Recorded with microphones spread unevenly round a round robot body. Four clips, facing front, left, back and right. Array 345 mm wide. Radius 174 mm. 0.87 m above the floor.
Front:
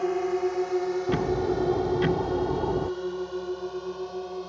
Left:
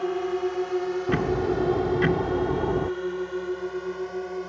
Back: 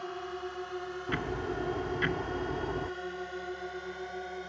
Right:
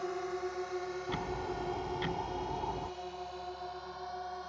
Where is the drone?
45° left; by 4.5 s 70° left.